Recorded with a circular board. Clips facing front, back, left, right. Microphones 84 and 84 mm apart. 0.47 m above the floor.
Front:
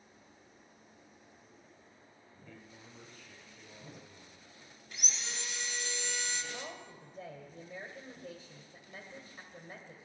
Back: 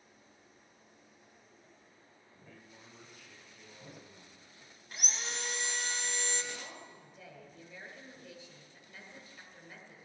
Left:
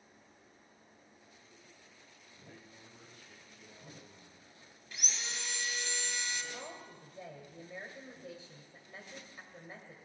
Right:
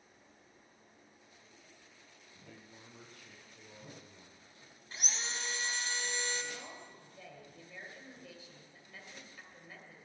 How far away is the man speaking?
About 5.5 m.